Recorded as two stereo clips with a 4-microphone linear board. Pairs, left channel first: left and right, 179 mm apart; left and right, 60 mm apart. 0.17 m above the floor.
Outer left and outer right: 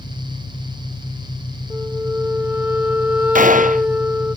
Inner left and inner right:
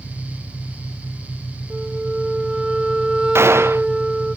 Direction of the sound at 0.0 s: 50° left (ahead or behind).